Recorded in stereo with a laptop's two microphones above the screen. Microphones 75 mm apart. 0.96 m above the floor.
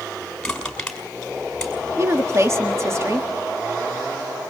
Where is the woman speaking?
35° right (ahead or behind), 1.6 m.